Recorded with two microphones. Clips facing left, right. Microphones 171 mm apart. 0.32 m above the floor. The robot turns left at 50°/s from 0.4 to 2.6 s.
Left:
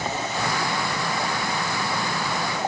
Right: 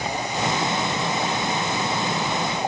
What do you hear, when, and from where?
Only background noise.